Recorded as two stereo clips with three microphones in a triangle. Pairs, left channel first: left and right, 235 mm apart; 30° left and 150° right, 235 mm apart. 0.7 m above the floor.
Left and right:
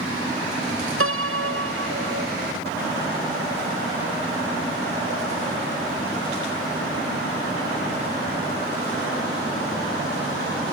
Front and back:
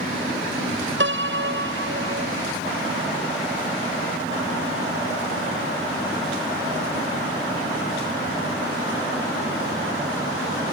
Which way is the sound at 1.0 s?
115° right.